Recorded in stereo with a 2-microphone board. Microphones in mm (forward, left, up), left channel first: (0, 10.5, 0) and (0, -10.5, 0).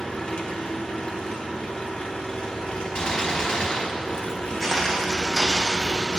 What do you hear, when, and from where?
0.0 s an engine running: 75° left (ahead or behind), 1.5 m
3.0 s a gunshot: 50° left (ahead or behind), 1.2 m
4.6 s footsteps: 15° left (ahead or behind), 2 m; by 6.2 s 35° right (ahead or behind), 2 m